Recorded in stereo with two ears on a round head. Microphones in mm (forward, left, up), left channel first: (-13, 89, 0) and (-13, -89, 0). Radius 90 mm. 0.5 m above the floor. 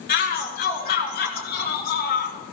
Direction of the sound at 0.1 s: 50° left (ahead or behind).